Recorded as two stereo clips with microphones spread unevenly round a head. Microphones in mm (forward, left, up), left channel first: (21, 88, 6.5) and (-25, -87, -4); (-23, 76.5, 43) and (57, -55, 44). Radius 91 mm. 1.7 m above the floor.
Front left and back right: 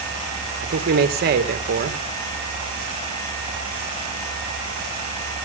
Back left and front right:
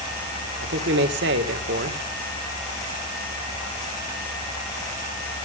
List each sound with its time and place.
0.6 s a man speaking: 65° right, 2 m